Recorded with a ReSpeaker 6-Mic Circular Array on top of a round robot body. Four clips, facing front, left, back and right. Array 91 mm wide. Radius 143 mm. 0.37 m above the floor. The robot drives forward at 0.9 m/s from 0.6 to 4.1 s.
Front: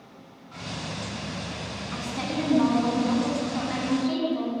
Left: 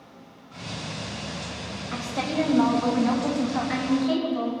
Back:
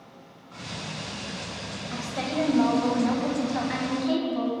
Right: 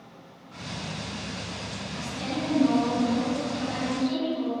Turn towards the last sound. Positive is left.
turn(degrees=145)